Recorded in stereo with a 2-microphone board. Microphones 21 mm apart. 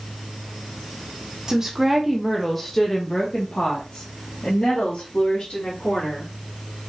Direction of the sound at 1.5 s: 25° right (ahead or behind).